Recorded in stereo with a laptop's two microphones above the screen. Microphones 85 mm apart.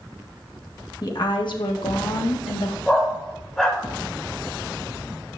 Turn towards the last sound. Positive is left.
turn(degrees=10)  # may be behind; listen again after turning